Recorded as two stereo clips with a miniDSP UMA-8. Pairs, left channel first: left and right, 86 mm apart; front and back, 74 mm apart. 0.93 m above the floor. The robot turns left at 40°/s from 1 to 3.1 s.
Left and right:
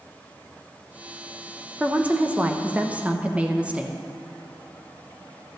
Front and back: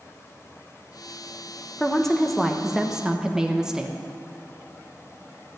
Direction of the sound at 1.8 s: 70° right.